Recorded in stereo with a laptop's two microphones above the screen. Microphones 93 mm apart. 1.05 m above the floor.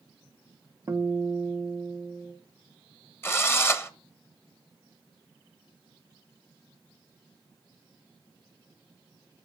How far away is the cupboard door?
No cupboard door in this recording.